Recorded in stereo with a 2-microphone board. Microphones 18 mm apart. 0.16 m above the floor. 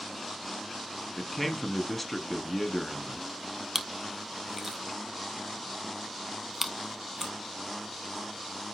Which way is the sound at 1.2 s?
10° left (ahead or behind).